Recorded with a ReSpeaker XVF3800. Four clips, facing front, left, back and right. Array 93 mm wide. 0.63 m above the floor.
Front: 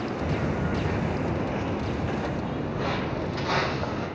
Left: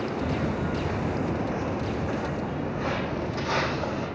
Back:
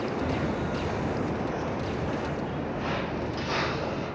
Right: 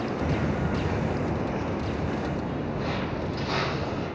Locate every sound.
0.2 s footsteps: 70° right, 0.6 m; by 4.1 s 15° left, 2 m